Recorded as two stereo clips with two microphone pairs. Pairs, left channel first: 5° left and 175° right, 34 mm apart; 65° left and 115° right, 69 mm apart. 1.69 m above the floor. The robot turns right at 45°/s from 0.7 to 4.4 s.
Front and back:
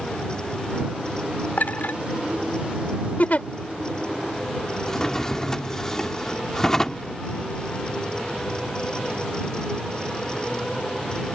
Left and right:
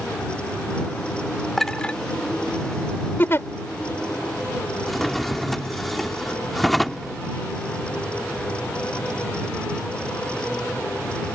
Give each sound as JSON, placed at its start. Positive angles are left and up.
{"t": 1.6, "sound": "a clink", "azimuth_deg": -25}
{"t": 3.2, "sound": "a giggle", "azimuth_deg": 10}
{"t": 4.9, "sound": "a drawer", "azimuth_deg": -20}